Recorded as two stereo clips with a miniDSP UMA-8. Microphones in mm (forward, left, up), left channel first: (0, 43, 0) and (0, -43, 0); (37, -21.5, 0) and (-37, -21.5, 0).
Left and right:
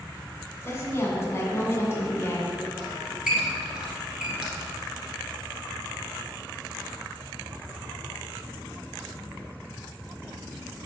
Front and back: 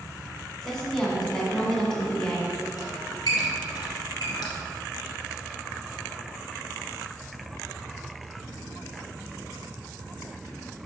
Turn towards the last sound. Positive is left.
turn(degrees=-10)